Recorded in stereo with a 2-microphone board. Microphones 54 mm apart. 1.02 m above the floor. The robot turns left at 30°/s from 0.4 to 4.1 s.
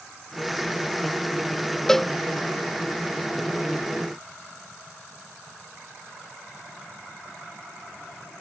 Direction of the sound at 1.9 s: 5° left (ahead or behind).